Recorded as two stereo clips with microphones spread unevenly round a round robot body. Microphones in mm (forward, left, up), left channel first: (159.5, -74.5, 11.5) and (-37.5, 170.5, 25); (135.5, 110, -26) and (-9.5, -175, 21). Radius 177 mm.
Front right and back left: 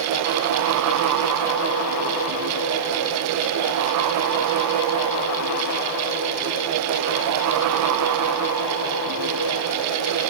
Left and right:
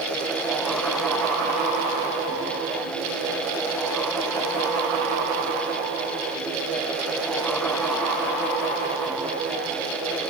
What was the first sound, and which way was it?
Only background noise.